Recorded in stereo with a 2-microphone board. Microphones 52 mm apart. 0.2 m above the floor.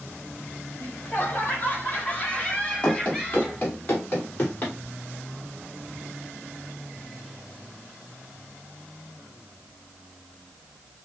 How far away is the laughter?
About 1.9 m.